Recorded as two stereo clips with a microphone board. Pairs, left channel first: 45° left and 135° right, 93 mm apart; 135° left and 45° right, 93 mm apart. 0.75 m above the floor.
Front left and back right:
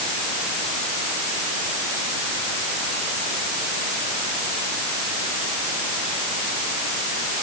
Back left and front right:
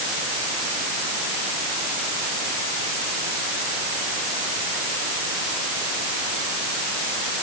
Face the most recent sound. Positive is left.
No sound to turn to.